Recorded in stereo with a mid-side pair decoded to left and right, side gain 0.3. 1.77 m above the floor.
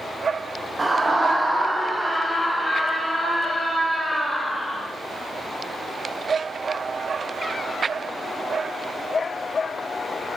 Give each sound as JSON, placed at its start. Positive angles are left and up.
{"t": 0.8, "sound": "a scream", "azimuth_deg": -35, "distance_m": 1.1}